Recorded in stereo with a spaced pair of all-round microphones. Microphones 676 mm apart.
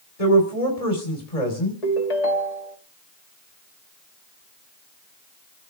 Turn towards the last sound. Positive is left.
turn(degrees=65)  # may be behind; listen again after turning